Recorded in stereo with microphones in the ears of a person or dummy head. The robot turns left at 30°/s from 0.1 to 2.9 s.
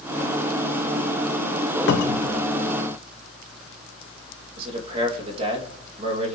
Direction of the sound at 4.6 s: 30° right (ahead or behind).